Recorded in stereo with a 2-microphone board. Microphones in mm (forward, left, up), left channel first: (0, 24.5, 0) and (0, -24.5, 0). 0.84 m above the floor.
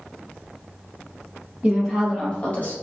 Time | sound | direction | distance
1.6 | a woman speaking | 20° right (ahead or behind) | 0.9 m